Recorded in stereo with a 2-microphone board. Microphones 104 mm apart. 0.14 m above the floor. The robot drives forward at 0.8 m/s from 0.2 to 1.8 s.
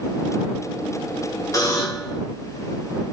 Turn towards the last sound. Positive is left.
turn(degrees=30)  # may be behind; listen again after turning